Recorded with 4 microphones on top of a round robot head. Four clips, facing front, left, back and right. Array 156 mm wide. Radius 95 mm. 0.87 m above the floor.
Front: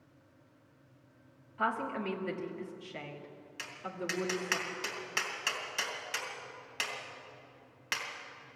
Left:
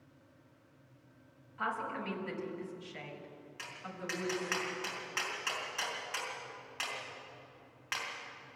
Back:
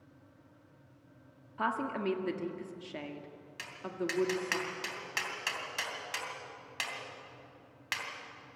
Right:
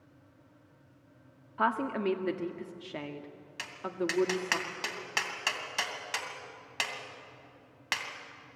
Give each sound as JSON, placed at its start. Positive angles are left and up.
{"t": 1.6, "sound": "a woman speaking", "azimuth_deg": -105, "distance_m": 1.6}
{"t": 3.6, "sound": "tapping", "azimuth_deg": -80, "distance_m": 3.0}